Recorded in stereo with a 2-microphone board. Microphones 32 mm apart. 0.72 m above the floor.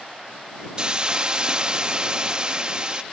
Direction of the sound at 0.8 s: 25° right (ahead or behind).